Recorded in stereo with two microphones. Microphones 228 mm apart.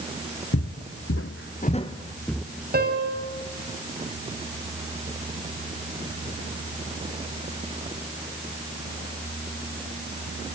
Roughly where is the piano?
Right.